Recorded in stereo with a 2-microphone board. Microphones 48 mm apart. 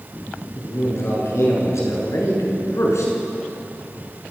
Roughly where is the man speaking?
Left.